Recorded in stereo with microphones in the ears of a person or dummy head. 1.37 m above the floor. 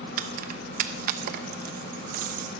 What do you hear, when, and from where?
0.2 s keys jangling: 55° right (ahead or behind), 0.9 m